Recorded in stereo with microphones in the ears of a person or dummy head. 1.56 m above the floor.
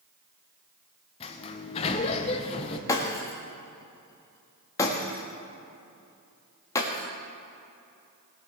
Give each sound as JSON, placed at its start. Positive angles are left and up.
{"t": 1.2, "sound": "a sliding door", "side_deg": 35, "distance_m": 0.9}
{"t": 2.9, "sound": "breaking glass", "side_deg": 20, "distance_m": 1.5}